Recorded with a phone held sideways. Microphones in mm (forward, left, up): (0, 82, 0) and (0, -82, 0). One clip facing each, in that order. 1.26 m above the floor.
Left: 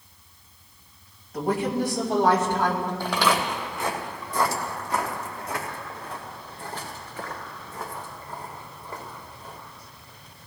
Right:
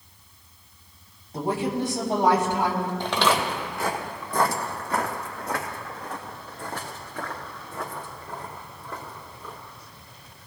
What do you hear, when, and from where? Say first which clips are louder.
1.3 s a woman speaking: left 1 dB; 30° right (ahead or behind), 3 m; by 2.9 s 5° right (ahead or behind), 3.5 m
3.0 s footsteps: right 1 dB; 20° right (ahead or behind), 2 m; by 9.6 s 75° right (ahead or behind), 6.5 m